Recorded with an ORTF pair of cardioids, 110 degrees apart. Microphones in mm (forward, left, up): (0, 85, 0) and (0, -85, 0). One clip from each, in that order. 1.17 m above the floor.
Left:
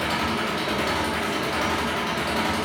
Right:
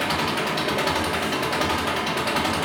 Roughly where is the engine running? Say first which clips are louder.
Right 1 dB; ahead right.